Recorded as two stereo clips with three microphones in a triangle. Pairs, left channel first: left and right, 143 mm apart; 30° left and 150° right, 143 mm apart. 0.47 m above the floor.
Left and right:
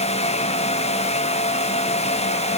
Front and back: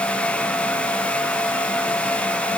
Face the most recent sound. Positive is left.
No sound to turn to.